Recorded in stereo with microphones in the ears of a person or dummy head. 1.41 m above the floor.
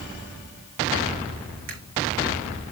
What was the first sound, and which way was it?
A camera shutter, 65° right (ahead or behind).